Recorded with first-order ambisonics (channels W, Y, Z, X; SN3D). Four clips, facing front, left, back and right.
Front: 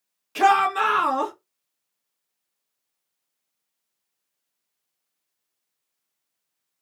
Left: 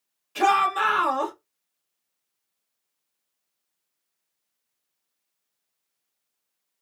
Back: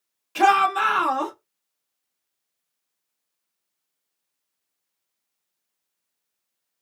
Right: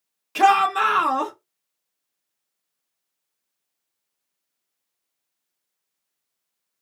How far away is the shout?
About 1.4 m.